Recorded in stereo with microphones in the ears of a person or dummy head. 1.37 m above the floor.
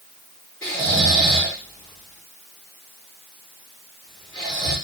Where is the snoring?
20° left (ahead or behind), 3 m.